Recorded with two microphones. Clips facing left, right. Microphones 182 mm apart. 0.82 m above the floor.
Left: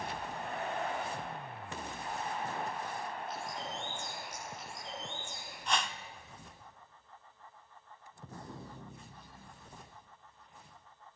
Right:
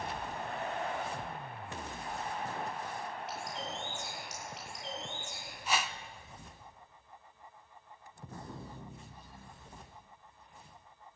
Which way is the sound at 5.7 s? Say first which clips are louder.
Even; 5° right (ahead or behind).